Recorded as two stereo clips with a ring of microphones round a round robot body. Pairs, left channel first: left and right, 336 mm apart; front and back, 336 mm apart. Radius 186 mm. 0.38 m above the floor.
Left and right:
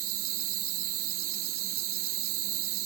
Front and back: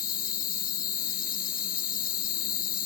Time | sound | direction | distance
0.0 | an insect | 65° right | ?